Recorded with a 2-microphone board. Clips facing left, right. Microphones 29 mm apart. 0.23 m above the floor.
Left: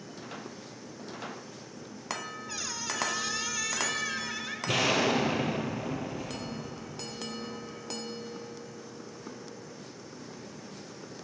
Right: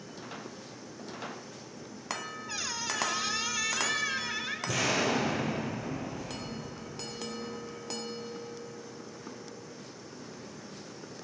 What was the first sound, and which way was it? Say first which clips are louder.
A squeak: right 2 dB; 15° right (ahead or behind).